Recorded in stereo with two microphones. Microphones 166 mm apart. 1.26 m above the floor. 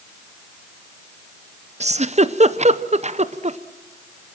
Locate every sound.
1.8 s a giggle: 45° right (ahead or behind), 0.7 m